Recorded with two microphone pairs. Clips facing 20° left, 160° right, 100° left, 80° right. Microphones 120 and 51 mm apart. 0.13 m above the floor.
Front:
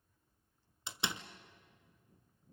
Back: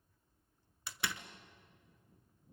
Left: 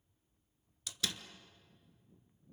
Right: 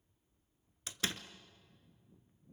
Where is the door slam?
35° right, 1.1 m.